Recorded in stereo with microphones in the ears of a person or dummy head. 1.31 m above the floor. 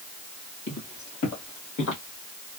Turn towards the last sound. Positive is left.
turn(degrees=55)  # may be behind; listen again after turning